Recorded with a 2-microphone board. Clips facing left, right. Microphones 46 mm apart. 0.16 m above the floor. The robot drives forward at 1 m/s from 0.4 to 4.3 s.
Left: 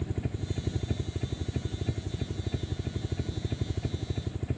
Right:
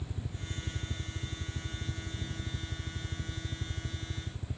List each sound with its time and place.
0.0 s a helicopter: 60° left (ahead or behind)